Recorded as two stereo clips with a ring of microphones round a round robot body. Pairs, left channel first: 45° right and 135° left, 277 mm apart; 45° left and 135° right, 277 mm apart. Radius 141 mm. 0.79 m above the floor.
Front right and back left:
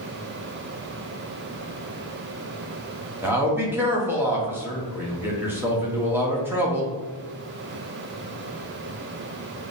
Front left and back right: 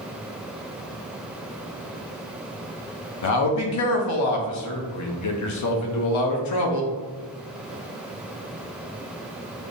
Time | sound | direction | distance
3.2 | a man speaking | 55° left | 0.7 m